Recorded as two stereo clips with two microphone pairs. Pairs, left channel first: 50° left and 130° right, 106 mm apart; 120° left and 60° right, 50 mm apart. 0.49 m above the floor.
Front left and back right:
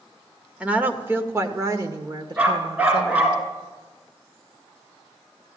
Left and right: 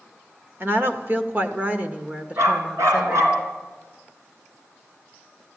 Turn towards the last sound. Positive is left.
turn(degrees=-55)